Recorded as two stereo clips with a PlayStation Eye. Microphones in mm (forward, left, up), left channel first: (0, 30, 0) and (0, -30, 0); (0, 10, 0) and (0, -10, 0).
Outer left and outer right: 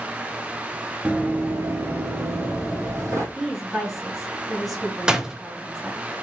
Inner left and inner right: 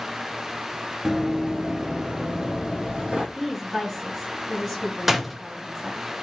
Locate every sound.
1.1 s running footsteps: 20° right (ahead or behind), 0.9 m; by 3.2 s 45° right (ahead or behind), 2.5 m
3.4 s a woman speaking: centre (ahead or behind), 3 m
5.1 s a door slam: 10° right (ahead or behind), 0.6 m